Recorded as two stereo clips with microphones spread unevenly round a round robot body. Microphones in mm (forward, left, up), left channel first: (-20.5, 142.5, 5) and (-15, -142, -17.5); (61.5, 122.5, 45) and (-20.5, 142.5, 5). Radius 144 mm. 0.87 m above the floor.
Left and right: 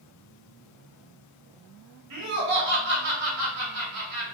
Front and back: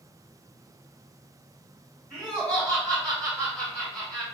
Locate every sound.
2.1 s laughter: 110° right, 1.4 m